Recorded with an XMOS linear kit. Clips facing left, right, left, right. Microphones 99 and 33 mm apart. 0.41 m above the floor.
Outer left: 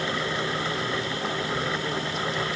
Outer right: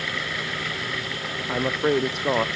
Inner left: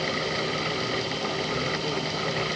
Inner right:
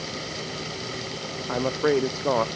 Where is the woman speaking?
65° right (ahead or behind).